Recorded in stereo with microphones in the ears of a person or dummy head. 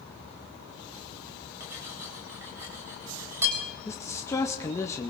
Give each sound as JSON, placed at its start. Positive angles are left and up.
{"t": 1.6, "sound": "cutlery clinking", "side_deg": -15, "distance_m": 4.0}
{"t": 3.9, "sound": "a man speaking", "side_deg": 15, "distance_m": 0.6}